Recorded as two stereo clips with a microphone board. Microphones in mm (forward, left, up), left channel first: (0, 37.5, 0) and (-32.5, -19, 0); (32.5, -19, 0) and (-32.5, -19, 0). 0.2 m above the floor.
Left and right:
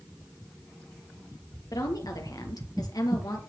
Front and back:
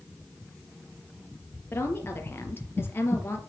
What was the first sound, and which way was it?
A woman speaking, 50° left.